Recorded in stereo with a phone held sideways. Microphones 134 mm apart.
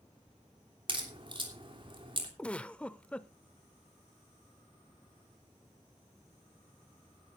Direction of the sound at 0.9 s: 40° right (ahead or behind).